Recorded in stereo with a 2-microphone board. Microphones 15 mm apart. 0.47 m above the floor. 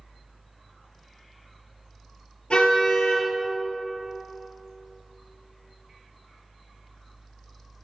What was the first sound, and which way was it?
A car horn, 85° left.